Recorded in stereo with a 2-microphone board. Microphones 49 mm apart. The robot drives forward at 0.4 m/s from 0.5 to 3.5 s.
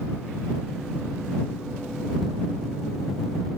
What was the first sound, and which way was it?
Only background noise.